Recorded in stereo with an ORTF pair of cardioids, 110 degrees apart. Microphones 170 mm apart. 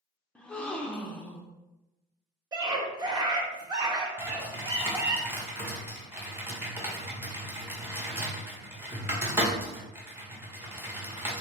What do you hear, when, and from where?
0.3 s a gasp: 5° left, 0.6 m
2.5 s a scream: 25° right, 1.4 m
4.2 s typing on a keyboard: 15° right, 1.3 m